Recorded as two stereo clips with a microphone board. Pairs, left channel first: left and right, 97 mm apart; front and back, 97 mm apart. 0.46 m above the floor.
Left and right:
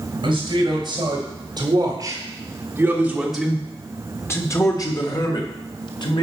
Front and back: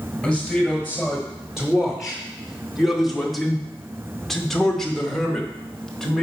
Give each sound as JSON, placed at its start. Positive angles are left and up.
{"t": 0.2, "sound": "a man speaking", "azimuth_deg": -95, "distance_m": 2.5}